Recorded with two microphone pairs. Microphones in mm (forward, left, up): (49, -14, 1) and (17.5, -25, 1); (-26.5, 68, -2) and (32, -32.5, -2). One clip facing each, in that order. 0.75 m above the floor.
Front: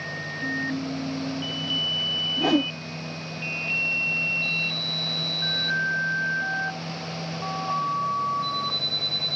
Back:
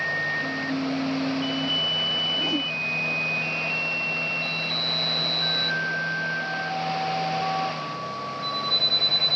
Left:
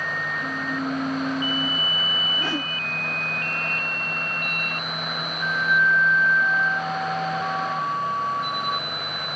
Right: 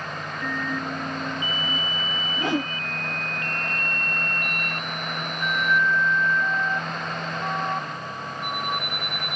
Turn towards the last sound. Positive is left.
turn(degrees=10)